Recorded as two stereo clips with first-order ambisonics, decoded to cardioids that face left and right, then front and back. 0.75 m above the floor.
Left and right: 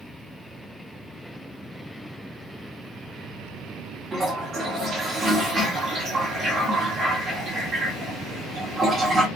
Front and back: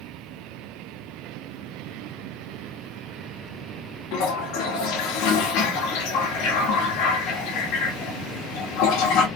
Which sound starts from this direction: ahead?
A toilet flushing, at 4.1 s.